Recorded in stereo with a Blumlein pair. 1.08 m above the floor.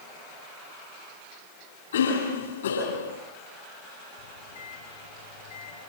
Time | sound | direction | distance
1.9 | a cough | 65° left | 9.5 m
4.2 | a microwave | 60° left | 6.5 m